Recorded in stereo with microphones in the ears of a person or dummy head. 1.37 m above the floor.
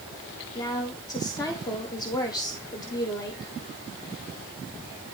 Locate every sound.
0.6 s a woman speaking: 15° left (ahead or behind), 0.6 m